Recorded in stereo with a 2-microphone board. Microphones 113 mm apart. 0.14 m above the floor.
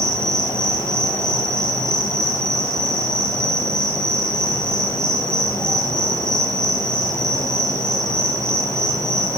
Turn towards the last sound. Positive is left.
turn(degrees=5)  # may be behind; listen again after turning